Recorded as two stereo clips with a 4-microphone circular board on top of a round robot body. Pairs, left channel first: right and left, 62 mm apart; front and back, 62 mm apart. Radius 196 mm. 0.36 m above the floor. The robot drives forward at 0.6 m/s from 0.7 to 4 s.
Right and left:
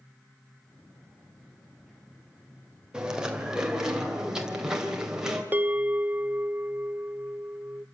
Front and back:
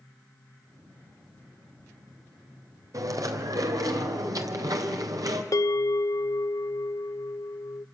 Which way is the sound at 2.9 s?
165° left.